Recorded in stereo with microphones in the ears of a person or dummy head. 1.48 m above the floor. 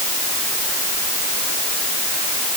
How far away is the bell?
No bell in this recording.